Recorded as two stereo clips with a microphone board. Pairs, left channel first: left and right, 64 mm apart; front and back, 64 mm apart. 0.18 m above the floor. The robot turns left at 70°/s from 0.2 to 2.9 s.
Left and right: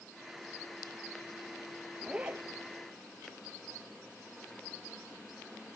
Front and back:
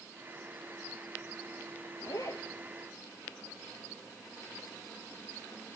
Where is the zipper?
5° right, 0.8 m; by 2.5 s 40° right, 0.8 m.